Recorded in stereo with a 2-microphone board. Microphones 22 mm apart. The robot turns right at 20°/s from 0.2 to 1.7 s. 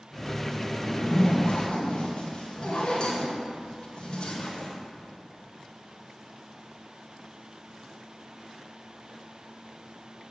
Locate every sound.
0.8 s a zipper: 70° left (ahead or behind), 2 m; by 4.7 s 50° left (ahead or behind), 2 m